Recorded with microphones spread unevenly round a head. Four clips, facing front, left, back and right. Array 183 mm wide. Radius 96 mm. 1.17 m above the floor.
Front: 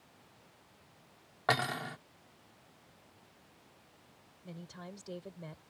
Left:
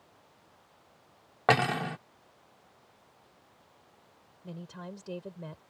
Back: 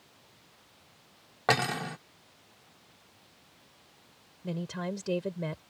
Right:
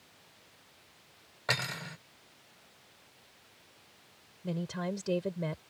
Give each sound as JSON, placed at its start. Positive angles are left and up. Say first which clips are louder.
{"t": 1.5, "sound": "cutlery clinking", "louder": "left 11 dB, back 4 dB", "azimuth_deg": 110}
{"t": 4.4, "sound": "a woman speaking", "louder": "right 8 dB, back 13 dB", "azimuth_deg": -145}